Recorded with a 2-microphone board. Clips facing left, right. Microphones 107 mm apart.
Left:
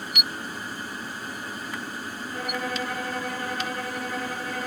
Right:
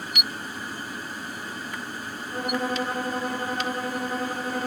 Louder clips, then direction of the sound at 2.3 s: Right 4 dB; 30° right (ahead or behind).